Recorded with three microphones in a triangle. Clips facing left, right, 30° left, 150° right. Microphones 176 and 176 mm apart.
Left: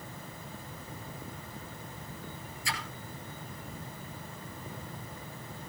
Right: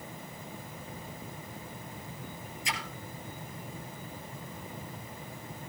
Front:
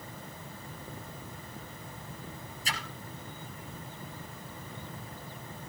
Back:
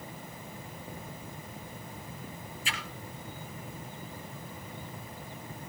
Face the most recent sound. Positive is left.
turn(degrees=-20)